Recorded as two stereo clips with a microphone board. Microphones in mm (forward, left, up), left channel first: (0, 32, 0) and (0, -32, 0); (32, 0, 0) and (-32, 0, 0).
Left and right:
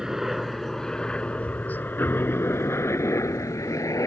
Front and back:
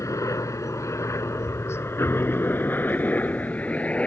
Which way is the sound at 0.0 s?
5° right.